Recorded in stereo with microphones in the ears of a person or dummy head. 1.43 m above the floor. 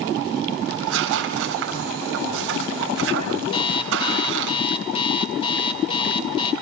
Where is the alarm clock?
25° left (ahead or behind), 4 m.